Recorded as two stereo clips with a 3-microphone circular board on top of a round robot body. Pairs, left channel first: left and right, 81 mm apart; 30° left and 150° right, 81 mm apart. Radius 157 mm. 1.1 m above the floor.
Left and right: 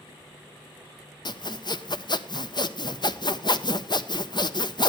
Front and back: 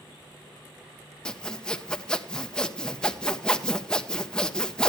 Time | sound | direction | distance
1.2 | sawing | 110° left | 1.0 m